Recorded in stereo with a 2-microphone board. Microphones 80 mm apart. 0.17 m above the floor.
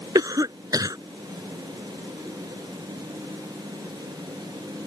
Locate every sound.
0.1 s a cough: 50° right (ahead or behind)